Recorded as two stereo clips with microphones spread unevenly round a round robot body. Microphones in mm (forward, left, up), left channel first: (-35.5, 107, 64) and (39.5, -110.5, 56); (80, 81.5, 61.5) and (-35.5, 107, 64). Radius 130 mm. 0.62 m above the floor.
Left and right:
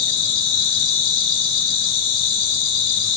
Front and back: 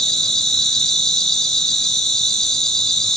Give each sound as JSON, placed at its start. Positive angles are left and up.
{"t": 0.0, "sound": "an insect", "azimuth_deg": 70, "distance_m": 1.8}